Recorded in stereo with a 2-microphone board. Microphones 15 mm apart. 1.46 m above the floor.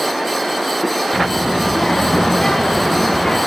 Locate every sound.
1.1 s a child speaking: 60° left (ahead or behind), 0.7 m